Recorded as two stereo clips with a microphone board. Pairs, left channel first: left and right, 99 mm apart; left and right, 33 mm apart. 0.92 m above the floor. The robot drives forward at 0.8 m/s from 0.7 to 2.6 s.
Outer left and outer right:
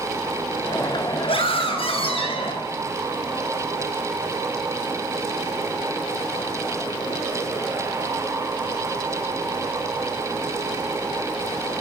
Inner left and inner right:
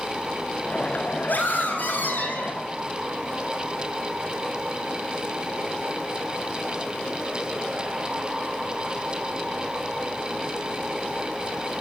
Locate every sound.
1.3 s a scream: 70° left (ahead or behind), 6 m; by 2.6 s 75° left (ahead or behind), 6 m